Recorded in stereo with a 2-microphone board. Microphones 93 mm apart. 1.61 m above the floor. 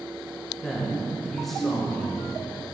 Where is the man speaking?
5° left (ahead or behind), 1.1 m.